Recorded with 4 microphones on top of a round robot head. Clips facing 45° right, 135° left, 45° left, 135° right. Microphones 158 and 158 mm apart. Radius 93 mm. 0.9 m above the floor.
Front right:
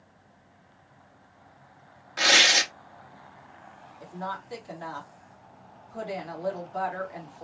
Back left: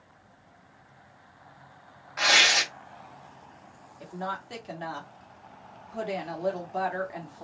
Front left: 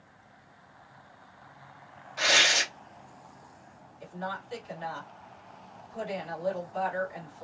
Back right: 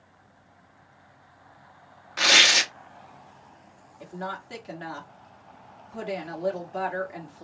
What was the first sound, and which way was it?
Tearing paper, 105° right.